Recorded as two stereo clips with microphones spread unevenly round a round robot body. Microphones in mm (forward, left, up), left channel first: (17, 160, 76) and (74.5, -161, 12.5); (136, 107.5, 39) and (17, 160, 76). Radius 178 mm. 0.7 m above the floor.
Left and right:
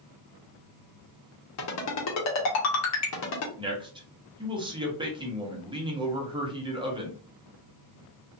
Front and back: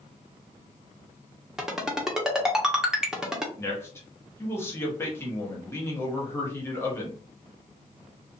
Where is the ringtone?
60° left, 1.0 m.